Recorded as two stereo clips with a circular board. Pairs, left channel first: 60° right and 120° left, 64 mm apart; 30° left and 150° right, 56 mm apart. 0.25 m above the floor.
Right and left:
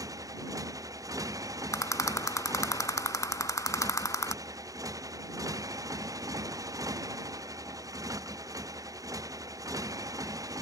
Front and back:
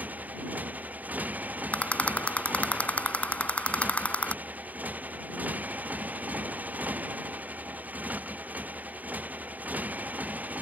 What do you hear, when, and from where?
0.0 s a motorcycle: 150° left
1.7 s a rattle: 30° right